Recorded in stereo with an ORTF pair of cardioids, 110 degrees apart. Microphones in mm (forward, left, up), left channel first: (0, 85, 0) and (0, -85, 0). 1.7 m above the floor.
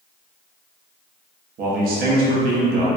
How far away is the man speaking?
About 0.8 m.